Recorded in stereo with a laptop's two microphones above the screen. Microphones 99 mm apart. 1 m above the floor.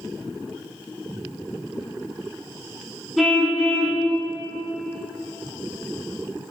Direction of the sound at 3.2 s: Centre (ahead or behind).